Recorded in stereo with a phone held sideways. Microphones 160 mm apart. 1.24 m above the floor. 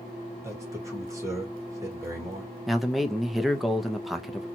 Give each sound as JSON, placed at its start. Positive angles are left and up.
{"t": 0.4, "sound": "a man speaking", "side_deg": -20, "distance_m": 1.6}
{"t": 2.7, "sound": "a man speaking", "side_deg": 0, "distance_m": 0.6}